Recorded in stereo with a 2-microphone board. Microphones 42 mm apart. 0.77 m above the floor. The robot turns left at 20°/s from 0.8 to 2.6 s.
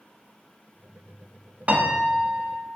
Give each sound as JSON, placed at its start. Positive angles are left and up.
{"t": 1.7, "sound": "a piano", "side_deg": -35, "distance_m": 0.5}